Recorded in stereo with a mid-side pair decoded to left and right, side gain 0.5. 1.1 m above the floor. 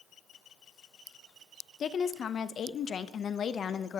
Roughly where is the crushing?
No crushing in this recording.